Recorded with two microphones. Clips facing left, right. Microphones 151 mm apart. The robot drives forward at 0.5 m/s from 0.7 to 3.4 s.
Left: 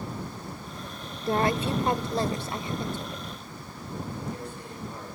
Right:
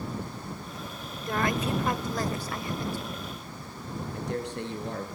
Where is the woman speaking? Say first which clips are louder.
Left 3 dB; 30° left (ahead or behind), 1.1 m; by 3.3 s 20° left (ahead or behind), 1.7 m.